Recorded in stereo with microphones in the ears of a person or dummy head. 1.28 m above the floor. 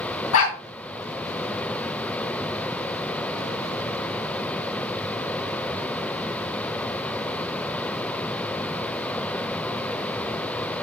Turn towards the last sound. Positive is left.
turn(degrees=75)  # may be behind; listen again after turning